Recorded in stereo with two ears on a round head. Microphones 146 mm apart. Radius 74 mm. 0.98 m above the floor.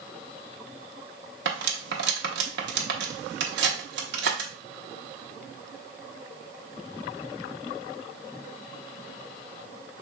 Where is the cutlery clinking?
75° right (ahead or behind), 1.0 m.